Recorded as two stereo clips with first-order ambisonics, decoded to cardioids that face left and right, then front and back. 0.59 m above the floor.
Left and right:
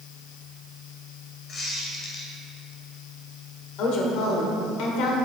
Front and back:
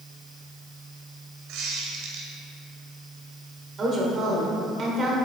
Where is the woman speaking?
115° left, 1.9 m.